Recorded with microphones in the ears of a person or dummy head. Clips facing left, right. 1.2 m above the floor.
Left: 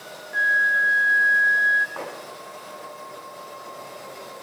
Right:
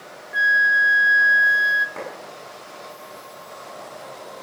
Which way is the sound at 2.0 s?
25° right (ahead or behind).